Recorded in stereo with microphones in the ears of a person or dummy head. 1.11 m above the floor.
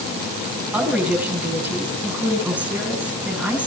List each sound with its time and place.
0.7 s a woman speaking: 10° right (ahead or behind), 7.5 m